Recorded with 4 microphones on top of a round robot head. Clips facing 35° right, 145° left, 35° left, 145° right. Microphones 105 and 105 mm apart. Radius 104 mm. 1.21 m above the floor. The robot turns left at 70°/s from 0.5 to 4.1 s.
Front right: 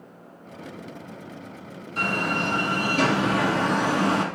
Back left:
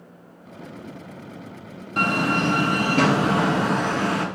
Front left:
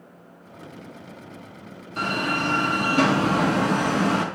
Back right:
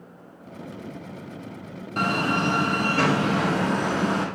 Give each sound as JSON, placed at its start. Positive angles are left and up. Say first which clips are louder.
{"t": 2.0, "sound": "a door slam", "louder": "back left 4 dB, back right 2 dB", "azimuth_deg": 180, "distance_m": 1.5}